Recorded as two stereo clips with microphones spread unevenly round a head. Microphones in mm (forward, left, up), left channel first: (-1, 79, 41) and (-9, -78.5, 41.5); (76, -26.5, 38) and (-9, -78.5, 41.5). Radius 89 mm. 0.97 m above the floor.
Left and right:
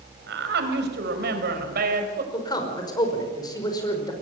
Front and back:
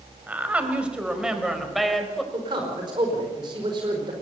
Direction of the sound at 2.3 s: 155° left.